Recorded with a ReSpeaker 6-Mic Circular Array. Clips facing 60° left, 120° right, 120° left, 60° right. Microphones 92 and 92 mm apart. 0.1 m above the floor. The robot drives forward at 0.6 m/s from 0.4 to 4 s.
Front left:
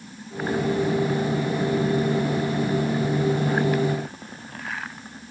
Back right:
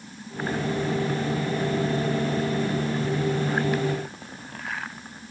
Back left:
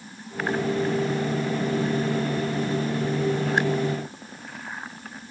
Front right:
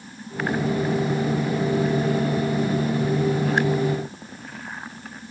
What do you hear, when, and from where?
Only background noise.